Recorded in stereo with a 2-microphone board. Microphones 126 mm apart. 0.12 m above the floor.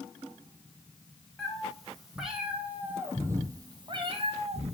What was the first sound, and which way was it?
A cat meowing, 5° left (ahead or behind).